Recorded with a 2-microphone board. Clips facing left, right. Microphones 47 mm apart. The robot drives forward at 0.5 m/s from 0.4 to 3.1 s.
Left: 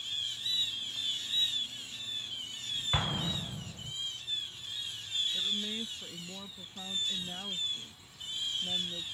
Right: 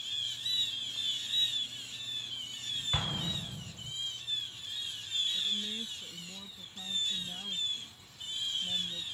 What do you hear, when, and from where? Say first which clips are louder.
2.9 s an explosion: left 3 dB; 15° left (ahead or behind)
5.3 s a woman speaking: left 1 dB; 30° left (ahead or behind)